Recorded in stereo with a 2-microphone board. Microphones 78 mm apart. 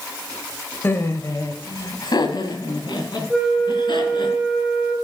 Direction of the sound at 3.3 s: 10° right (ahead or behind).